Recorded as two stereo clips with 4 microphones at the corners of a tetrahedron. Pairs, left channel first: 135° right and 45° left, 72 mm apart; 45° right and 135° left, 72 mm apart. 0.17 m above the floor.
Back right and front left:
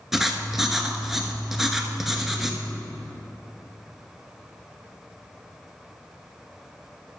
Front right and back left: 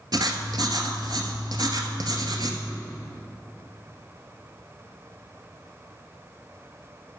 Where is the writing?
130° left, 1.0 m.